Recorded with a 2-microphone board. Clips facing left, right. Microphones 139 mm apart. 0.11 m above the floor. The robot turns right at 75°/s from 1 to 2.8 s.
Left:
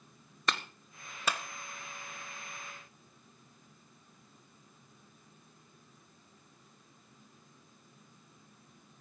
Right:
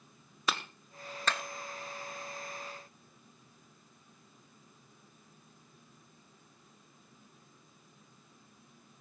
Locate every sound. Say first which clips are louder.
0.5 s a clap: even; 5° right (ahead or behind), 1.1 m; by 1.4 s 15° left (ahead or behind), 1.1 m